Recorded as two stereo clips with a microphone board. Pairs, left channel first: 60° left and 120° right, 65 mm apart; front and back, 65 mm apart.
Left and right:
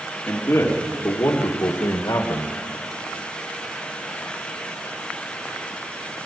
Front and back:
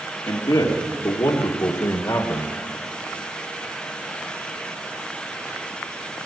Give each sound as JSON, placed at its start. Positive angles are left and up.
{"t": 0.3, "sound": "a man speaking", "azimuth_deg": 0, "distance_m": 2.5}